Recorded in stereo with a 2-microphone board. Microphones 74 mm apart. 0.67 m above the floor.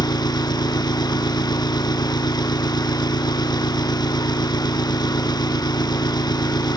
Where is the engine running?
80° left.